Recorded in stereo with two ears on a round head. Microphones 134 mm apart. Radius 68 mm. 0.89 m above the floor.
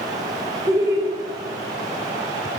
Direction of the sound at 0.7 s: 20° right (ahead or behind).